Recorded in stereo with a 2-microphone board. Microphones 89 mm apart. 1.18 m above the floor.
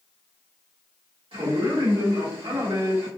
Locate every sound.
1.3 s a man speaking: 75° right (ahead or behind), 1.5 m